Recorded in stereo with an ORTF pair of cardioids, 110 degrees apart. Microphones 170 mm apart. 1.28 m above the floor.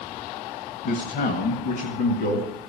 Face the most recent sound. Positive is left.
turn(degrees=75)